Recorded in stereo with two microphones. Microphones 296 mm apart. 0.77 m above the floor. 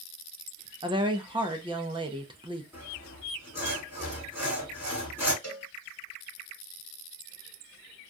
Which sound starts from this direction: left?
A cowbell, at 5.4 s.